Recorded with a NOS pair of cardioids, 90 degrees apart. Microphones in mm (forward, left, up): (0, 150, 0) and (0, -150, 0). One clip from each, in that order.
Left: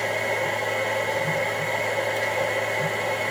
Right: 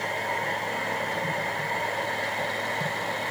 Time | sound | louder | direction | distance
0.0 | a machine running | left 4 dB | 70° left | 5 m